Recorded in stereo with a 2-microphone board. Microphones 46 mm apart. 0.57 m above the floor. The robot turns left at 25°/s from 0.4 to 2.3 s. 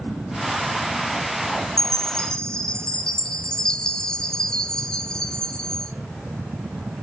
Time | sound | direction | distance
1.8 | a chime | 10° left (ahead or behind) | 1.2 m